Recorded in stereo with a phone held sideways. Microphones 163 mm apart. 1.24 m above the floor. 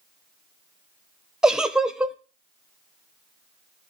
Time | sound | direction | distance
1.4 | a giggle | 5° right (ahead or behind) | 0.6 m